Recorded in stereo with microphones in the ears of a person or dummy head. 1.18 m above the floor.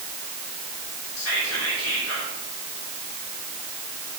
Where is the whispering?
85° left, 3 m.